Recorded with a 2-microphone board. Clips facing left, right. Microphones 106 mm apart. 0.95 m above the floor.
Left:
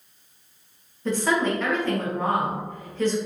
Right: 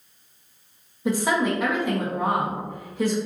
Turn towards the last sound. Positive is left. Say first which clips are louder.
# right 1 dB
turn(degrees=-10)  # may be behind; listen again after turning